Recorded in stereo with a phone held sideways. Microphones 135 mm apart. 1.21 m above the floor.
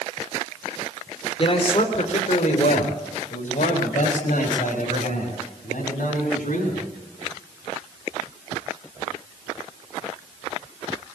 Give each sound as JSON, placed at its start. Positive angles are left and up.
{"t": 1.4, "sound": "a man speaking", "side_deg": 45, "distance_m": 3.5}